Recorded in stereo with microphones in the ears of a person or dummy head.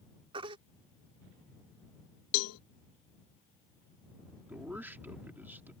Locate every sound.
0.3 s a baby crying: 25° right (ahead or behind)
2.3 s a cowbell: 80° left
4.5 s a man speaking: 5° right (ahead or behind)